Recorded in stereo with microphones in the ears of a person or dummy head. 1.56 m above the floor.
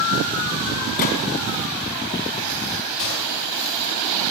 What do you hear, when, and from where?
1.0 s a gunshot: 45° left (ahead or behind), 2.5 m
3.0 s a gunshot: 65° left (ahead or behind), 4.5 m